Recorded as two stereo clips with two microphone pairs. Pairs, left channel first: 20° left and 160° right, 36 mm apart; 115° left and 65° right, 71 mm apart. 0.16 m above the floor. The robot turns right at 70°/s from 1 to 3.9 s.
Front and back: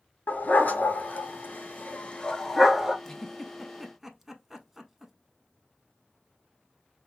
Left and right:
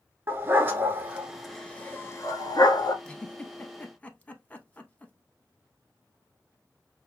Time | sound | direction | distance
0.3 | a dog barking | 5° right | 0.6 m
3.0 | a giggle | 70° left | 0.6 m